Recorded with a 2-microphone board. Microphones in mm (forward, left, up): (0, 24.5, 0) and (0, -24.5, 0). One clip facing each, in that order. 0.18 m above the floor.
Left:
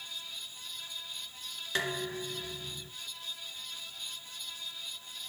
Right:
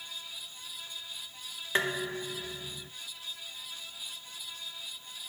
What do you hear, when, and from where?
1.8 s dishes clattering: 25° right (ahead or behind), 1.6 m